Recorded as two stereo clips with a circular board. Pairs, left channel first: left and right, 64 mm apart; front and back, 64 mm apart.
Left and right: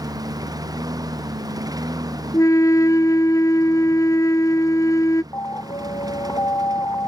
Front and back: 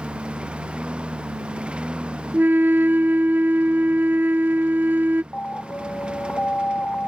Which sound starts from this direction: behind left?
A flute, at 2.3 s.